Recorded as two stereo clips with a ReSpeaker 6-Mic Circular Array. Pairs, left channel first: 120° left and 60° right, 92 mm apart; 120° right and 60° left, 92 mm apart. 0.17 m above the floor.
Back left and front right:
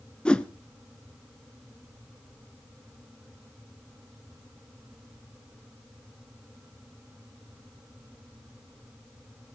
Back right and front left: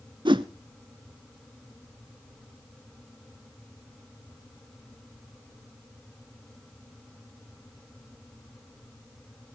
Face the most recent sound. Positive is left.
turn(degrees=45)